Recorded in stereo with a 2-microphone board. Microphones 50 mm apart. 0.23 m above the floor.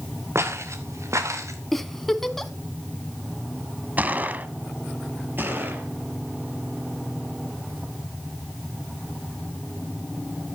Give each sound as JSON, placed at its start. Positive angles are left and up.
{"t": 0.3, "sound": "footsteps", "side_deg": -65, "distance_m": 3.5}
{"t": 1.7, "sound": "a giggle", "side_deg": 5, "distance_m": 1.2}
{"t": 4.0, "sound": "a gunshot", "side_deg": -35, "distance_m": 1.3}
{"t": 5.4, "sound": "a gunshot", "side_deg": -45, "distance_m": 6.0}